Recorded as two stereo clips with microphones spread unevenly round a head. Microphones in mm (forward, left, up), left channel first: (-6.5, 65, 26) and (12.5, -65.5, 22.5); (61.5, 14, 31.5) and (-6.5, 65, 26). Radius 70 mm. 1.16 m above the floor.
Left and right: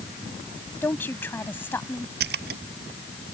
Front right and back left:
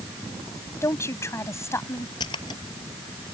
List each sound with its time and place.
0.8 s a woman speaking: 20° left
2.2 s a splash: 95° right